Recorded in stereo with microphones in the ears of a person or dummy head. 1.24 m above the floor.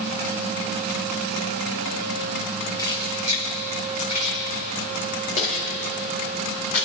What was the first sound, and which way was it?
Keys jangling, 20° left (ahead or behind).